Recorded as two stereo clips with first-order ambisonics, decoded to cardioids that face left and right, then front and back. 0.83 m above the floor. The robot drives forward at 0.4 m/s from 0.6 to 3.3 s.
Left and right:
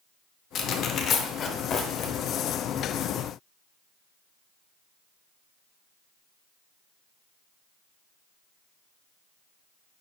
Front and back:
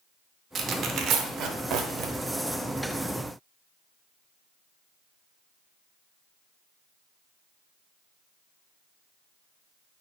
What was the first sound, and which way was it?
Tearing paper, 135° left.